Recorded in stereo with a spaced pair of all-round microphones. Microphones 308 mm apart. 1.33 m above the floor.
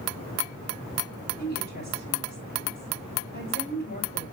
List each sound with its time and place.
1.4 s a woman speaking: 30° left (ahead or behind), 4 m